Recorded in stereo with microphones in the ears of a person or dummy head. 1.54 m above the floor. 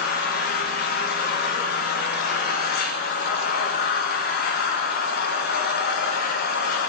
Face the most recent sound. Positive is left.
turn(degrees=45)  # may be behind; listen again after turning